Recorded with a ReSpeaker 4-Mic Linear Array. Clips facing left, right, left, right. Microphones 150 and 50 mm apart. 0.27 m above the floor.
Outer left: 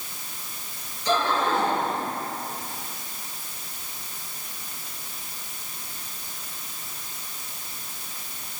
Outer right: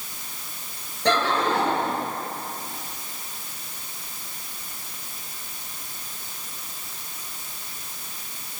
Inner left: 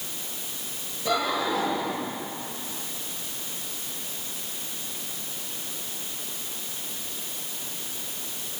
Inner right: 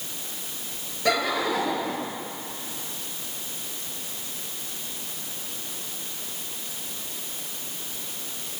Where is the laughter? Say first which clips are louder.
Outer right 1 dB, inner right 2 dB; 70° right (ahead or behind), 6 m.